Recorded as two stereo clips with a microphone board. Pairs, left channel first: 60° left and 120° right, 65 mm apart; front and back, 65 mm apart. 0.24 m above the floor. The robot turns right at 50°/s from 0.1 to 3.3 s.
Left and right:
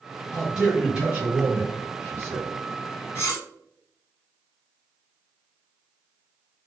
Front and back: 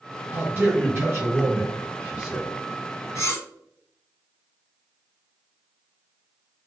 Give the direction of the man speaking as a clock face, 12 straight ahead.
7 o'clock.